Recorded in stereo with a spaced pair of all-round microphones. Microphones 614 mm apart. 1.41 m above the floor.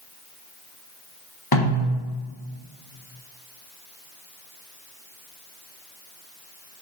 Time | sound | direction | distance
1.5 | a snare drum | 35° left (ahead or behind) | 4 m